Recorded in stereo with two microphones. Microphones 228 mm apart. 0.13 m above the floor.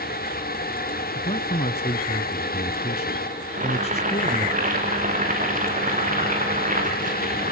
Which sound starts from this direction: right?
Boiling, at 3.5 s.